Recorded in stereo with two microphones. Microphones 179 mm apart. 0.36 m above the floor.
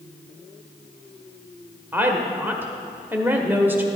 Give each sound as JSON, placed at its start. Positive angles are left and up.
{"t": 1.9, "sound": "a woman speaking", "side_deg": -10, "distance_m": 1.0}